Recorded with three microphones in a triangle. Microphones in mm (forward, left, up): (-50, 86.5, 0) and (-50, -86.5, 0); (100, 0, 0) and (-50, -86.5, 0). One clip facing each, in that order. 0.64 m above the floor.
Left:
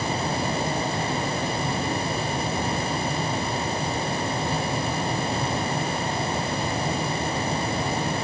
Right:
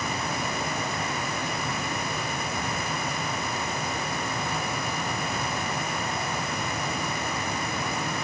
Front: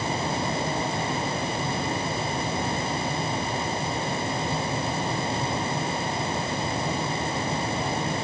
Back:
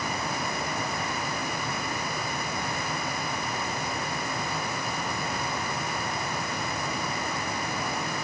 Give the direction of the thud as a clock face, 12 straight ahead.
No thud in this recording.